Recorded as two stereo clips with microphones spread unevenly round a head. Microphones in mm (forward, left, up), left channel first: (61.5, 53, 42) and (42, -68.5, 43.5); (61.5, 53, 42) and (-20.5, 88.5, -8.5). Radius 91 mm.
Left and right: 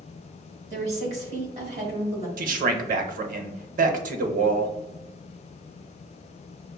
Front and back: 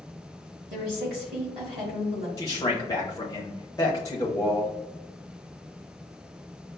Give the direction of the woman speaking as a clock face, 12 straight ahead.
5 o'clock.